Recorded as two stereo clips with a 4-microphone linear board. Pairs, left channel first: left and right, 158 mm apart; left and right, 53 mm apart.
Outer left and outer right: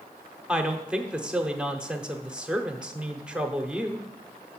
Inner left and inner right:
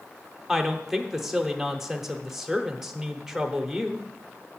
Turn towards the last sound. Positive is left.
turn(degrees=-5)  # may be behind; listen again after turning